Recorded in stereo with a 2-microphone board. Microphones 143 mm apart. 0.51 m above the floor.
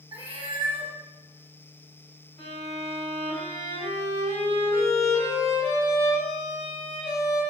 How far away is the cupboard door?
No cupboard door in this recording.